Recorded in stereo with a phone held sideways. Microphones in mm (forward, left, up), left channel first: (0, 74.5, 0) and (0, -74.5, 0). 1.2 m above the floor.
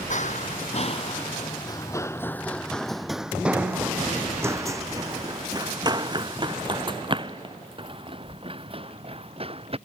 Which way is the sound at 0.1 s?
55° left (ahead or behind).